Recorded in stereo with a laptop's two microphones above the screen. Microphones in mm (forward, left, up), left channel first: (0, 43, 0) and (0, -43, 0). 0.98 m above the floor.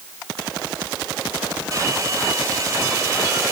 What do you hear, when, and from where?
1.7 s a hair dryer: 35° right (ahead or behind), 3.5 m